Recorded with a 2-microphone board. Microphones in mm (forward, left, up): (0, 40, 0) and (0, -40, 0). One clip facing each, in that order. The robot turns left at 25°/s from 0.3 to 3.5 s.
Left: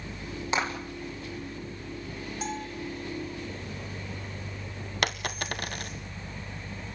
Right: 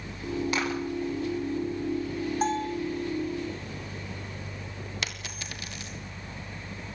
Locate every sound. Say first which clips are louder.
0.5 s a clap: left 4 dB; 25° left (ahead or behind), 8.5 m; by 0.7 s 20° left (ahead or behind), 8.5 m
2.4 s a bell: right 7 dB; 45° right (ahead or behind), 3.5 m; by 2.8 s 35° right (ahead or behind), 3.5 m
5.0 s a dropped coin: left 7 dB; 50° left (ahead or behind), 1.5 m